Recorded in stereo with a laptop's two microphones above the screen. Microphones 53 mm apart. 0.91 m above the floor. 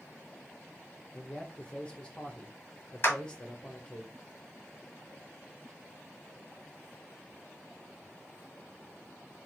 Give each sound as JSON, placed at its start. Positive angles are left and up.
{"t": 1.1, "sound": "a man speaking", "side_deg": 15, "distance_m": 0.9}
{"t": 3.0, "sound": "a clap", "side_deg": 40, "distance_m": 1.5}